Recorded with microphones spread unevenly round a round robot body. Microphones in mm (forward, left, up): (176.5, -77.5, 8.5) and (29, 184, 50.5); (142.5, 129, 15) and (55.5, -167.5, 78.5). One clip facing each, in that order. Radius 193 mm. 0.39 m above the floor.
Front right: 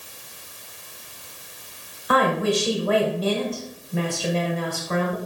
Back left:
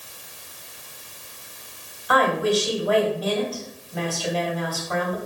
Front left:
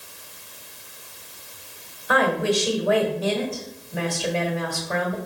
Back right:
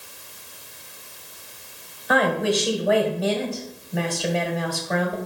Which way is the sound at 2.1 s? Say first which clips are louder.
Even, even; 5° right.